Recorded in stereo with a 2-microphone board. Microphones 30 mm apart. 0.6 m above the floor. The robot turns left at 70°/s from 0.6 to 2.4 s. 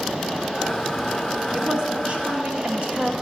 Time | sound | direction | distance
1.5 | a woman speaking | 25° right | 1.3 m